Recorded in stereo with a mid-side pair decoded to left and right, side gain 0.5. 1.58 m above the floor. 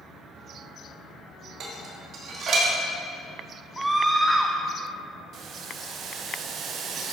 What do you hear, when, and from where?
1.6 s dishes clattering: 55° right, 2.0 m
3.8 s a scream: 15° right, 0.6 m
5.3 s boiling: 60° right, 0.9 m